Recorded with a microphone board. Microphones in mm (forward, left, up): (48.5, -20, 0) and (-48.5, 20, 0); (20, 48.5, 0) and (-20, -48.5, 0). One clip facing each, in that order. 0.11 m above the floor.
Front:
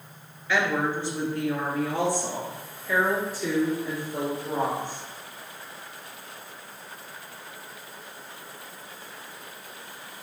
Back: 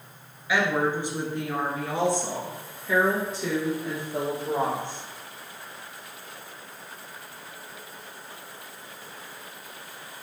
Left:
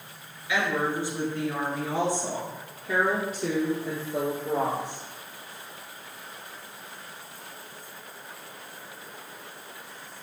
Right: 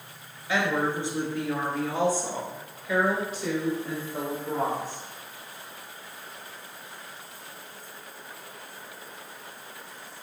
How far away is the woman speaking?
About 1.3 m.